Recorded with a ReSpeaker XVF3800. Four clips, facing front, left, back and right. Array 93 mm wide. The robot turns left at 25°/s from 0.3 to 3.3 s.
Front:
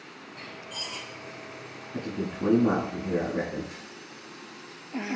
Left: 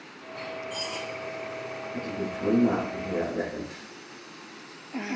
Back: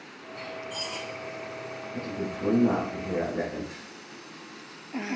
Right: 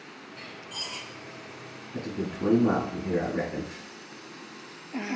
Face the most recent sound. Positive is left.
turn(degrees=-55)